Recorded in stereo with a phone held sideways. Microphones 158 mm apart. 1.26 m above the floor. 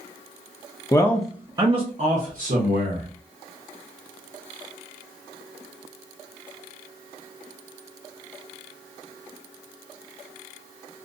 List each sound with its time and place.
0.9 s a man speaking: 25° left (ahead or behind), 0.5 m; by 3.1 s 70° right (ahead or behind), 1.3 m